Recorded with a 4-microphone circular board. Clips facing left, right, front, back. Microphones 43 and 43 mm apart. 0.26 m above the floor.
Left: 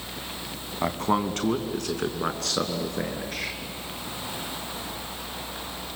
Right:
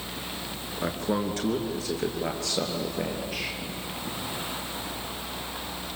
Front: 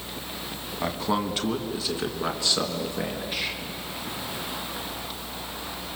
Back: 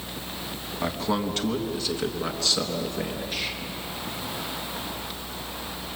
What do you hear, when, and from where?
0.8 s a man speaking: 85° left, 2.0 m; by 3.6 s 75° left, 4 m